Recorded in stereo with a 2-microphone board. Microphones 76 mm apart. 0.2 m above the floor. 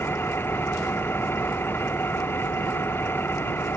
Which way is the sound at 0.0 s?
30° left (ahead or behind).